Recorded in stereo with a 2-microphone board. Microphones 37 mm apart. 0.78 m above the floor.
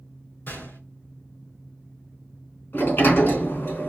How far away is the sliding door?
About 3.5 m.